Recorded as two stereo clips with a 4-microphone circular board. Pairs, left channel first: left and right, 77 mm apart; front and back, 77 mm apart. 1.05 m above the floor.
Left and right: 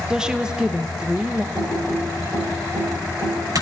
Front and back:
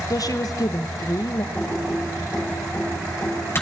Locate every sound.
0.1 s a woman speaking: 10° right, 0.6 m
1.6 s typing on a keyboard: 55° right, 6 m